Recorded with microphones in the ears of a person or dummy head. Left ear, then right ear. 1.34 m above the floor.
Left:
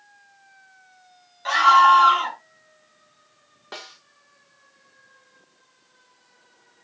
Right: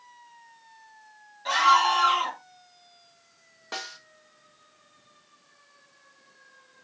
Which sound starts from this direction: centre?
A snare drum, at 3.7 s.